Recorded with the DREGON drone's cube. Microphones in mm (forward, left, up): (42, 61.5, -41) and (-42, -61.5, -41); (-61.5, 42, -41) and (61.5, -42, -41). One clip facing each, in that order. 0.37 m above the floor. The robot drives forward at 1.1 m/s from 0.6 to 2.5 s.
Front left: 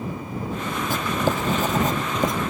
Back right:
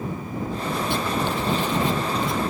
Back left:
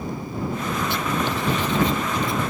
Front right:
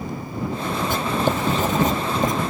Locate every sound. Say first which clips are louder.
0.9 s writing: front left 3 dB, front right 5 dB; 10° left